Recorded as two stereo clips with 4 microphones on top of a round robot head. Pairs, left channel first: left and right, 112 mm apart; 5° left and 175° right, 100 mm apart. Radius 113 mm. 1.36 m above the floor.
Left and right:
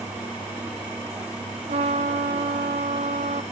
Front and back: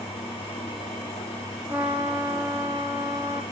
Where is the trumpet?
100° right, 1.0 m.